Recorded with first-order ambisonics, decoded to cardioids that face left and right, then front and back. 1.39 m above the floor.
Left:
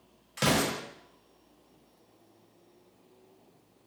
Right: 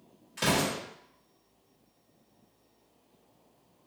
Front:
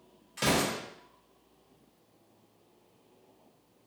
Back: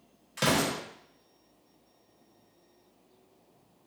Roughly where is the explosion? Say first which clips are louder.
Left 1 dB, back 1 dB; behind left.